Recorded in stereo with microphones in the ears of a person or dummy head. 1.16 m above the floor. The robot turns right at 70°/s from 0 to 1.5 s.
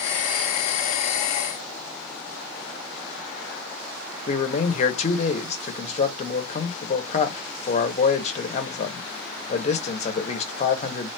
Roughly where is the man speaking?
Left.